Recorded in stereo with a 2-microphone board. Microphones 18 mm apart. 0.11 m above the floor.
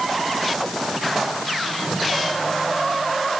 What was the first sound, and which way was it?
Only background noise.